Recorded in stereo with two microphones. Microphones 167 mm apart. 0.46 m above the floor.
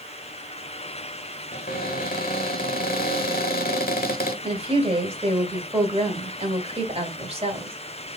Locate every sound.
1.5 s a cupboard door: 60° left (ahead or behind), 1.1 m
4.4 s a woman speaking: 35° right (ahead or behind), 1.7 m